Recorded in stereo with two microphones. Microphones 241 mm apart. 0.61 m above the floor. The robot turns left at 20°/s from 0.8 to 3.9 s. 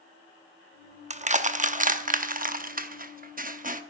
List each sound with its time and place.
1.1 s crushing: 30° right (ahead or behind), 0.8 m; by 3.8 s 35° right (ahead or behind), 0.8 m